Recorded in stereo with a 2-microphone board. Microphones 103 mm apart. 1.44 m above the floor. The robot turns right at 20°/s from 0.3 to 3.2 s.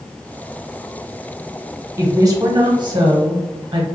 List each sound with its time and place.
2.0 s a woman speaking: 25° right (ahead or behind), 1.0 m; by 3.9 s 50° right (ahead or behind), 1.0 m